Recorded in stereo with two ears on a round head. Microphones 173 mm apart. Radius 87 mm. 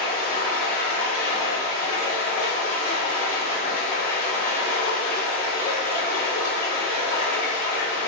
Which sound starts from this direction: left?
Running water, at 0.0 s.